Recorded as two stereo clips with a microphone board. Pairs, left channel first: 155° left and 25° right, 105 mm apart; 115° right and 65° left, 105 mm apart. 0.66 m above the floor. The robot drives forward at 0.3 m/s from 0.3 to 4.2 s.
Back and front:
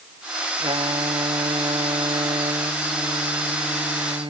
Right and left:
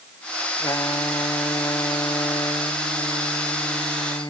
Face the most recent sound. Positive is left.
turn(degrees=-65)